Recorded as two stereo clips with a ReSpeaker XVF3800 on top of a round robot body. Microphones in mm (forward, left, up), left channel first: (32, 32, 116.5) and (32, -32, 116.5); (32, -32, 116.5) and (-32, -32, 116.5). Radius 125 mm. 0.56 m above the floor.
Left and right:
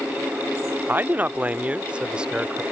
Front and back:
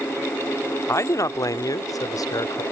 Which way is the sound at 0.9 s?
35° right.